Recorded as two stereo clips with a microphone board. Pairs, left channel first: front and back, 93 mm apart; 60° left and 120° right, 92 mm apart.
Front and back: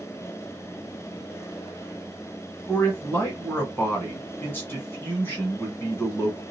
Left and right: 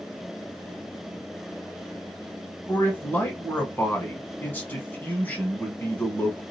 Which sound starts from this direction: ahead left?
A man speaking, at 2.7 s.